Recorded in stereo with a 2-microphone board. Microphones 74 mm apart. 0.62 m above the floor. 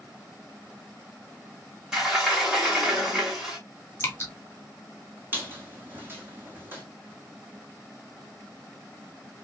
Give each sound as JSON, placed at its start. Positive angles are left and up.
{"t": 1.9, "sound": "a sliding door", "side_deg": -10, "distance_m": 1.9}
{"t": 4.0, "sound": "dripping", "side_deg": 30, "distance_m": 1.5}
{"t": 5.3, "sound": "a squeak", "side_deg": -25, "distance_m": 1.4}